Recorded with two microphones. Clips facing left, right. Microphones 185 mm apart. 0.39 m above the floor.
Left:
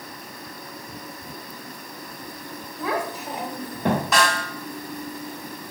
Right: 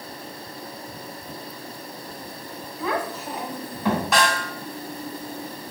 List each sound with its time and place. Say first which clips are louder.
2.8 s a child speaking: even; centre (ahead or behind), 1.0 m; by 4.0 s 55° left (ahead or behind), 0.9 m
4.1 s a snare drum: even; centre (ahead or behind), 2 m